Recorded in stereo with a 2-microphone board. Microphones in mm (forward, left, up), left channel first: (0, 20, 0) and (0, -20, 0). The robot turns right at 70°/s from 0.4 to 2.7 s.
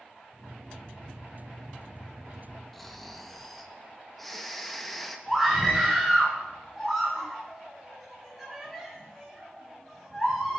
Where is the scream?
5° right (ahead or behind), 7 m.